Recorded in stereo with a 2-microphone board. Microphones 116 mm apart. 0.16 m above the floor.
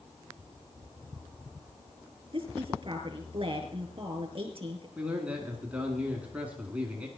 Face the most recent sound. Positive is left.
turn(degrees=-10)  # may be behind; listen again after turning